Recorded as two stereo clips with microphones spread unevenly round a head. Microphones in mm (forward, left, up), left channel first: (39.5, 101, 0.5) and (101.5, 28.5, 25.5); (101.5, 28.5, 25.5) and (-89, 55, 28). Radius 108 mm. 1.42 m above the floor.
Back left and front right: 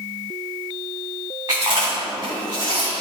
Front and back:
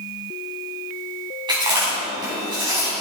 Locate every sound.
1.5 s chewing: 115° right, 4 m